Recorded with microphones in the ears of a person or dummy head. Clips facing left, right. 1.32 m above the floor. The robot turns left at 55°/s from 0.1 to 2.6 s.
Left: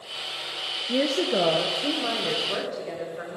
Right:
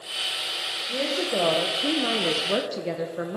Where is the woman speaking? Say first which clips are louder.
Left 3 dB; 40° left, 0.9 m; by 3.4 s 55° right, 0.9 m.